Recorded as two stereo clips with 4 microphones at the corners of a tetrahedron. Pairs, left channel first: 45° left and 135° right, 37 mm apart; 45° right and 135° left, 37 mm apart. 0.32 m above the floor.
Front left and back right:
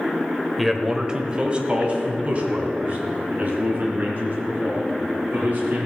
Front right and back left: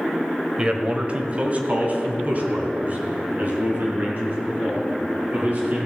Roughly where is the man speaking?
Behind left.